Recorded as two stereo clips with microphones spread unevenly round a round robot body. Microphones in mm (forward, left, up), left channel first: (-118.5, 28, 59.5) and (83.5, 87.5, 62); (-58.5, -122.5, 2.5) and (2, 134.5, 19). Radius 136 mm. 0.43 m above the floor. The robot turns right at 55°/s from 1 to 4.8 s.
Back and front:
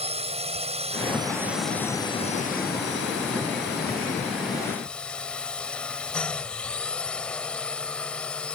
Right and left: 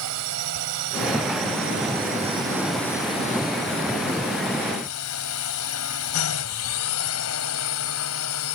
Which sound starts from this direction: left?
A drone, at 0.0 s.